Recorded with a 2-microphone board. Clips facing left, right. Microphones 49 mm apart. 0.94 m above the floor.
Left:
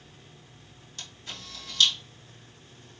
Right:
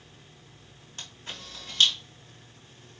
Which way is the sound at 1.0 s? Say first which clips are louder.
Right 1 dB; 40° right (ahead or behind).